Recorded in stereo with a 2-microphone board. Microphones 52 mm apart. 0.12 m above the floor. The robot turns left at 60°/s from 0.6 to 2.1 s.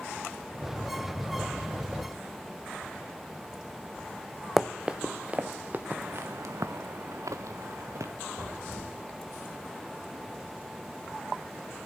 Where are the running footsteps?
Centre (ahead or behind), 0.6 m; by 5.8 s 35° right (ahead or behind), 1.2 m.